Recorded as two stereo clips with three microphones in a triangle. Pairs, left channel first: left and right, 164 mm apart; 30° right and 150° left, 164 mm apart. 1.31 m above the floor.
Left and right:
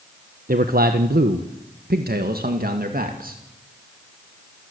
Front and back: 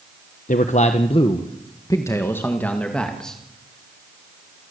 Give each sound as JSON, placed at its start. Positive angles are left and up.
{"t": 0.5, "sound": "a man speaking", "azimuth_deg": -65, "distance_m": 1.2}